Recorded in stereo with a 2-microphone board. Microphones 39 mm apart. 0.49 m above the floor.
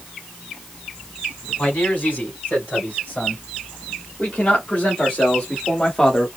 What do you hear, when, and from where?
1.6 s a man speaking: 45° left (ahead or behind), 3 m; by 6.3 s 10° left (ahead or behind), 0.9 m